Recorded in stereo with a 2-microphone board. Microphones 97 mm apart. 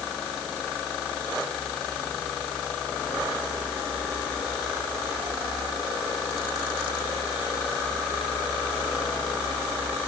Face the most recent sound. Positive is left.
No sound to turn to.